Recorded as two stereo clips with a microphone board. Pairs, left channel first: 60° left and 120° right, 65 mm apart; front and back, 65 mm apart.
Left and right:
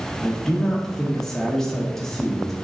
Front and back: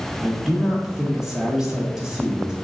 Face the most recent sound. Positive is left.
turn(degrees=130)